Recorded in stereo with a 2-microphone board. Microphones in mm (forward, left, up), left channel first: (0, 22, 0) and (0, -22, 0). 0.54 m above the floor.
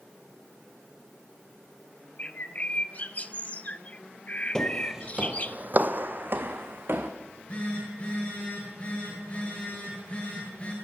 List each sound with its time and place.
2.2 s a bird: 30° left (ahead or behind), 0.7 m
4.5 s footsteps: 15° left (ahead or behind), 0.6 m; by 7.1 s 55° right (ahead or behind), 2 m
7.2 s a phone buzzing: 30° left (ahead or behind), 10 m